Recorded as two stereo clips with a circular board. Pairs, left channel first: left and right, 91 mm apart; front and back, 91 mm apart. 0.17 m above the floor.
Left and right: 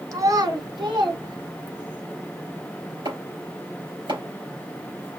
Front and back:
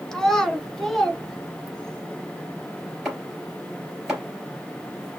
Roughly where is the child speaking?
Right.